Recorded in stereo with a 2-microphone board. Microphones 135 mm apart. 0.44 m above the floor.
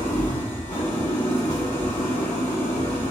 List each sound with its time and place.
0.0 s an engine running: 85° left, 1.7 m